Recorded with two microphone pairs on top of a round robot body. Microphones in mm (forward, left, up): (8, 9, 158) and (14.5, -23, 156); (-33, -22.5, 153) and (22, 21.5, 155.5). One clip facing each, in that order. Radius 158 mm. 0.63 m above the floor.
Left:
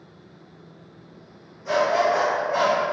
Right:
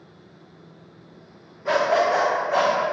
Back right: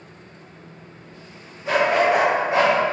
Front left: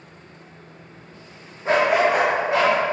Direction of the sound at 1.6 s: 20° right.